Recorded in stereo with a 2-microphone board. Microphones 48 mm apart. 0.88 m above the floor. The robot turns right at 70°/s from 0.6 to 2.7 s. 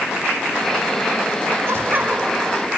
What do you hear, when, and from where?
1.7 s laughter: 60° right, 3 m; by 2.7 s 10° left, 3 m